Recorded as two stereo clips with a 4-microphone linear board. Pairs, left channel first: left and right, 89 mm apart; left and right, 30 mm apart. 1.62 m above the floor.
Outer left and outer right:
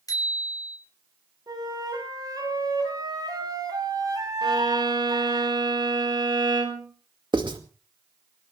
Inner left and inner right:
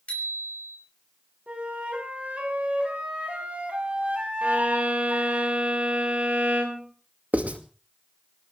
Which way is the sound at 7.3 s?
60° right (ahead or behind).